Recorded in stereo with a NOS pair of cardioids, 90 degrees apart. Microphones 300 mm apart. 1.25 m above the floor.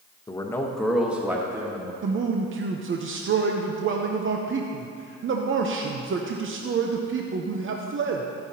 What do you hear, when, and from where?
0.3 s a man speaking: 15° left, 1.0 m; by 1.9 s 10° right, 2 m
2.0 s a man speaking: 40° right, 0.8 m